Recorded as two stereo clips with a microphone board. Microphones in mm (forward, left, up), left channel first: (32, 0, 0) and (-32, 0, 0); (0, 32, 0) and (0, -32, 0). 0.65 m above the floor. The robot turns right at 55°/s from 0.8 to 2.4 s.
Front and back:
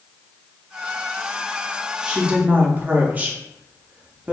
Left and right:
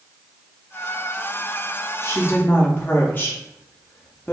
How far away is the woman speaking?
About 0.7 m.